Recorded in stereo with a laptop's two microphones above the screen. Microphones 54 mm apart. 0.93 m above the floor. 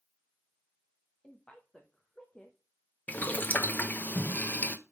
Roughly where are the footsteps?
I don't hear footsteps.